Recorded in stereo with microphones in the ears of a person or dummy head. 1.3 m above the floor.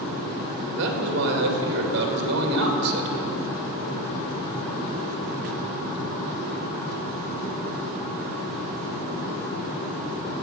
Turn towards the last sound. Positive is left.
turn(degrees=-60)  # may be behind; listen again after turning